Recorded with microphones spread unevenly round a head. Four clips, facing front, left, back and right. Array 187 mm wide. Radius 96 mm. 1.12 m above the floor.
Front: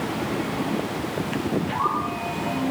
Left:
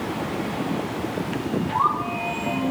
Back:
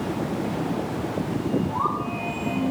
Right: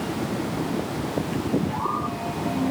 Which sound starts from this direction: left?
A bird, at 1.7 s.